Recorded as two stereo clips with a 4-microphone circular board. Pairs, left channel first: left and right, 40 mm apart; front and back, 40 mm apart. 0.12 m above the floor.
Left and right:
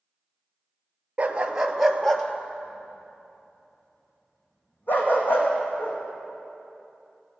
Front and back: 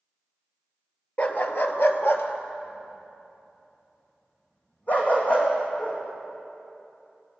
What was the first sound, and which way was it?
A dog barking, 35° right.